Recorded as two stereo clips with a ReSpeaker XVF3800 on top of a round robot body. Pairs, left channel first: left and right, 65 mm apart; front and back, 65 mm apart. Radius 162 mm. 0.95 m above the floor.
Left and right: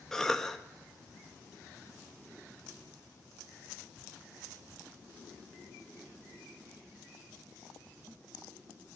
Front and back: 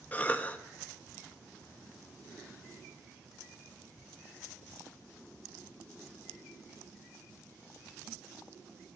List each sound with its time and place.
0.1 s a cough: 15° left, 0.6 m